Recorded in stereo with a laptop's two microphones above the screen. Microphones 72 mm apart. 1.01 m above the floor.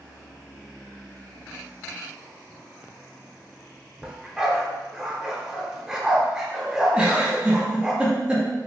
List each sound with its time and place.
4.0 s a dog barking: 5° right (ahead or behind), 0.7 m
6.9 s a giggle: 15° right (ahead or behind), 0.5 m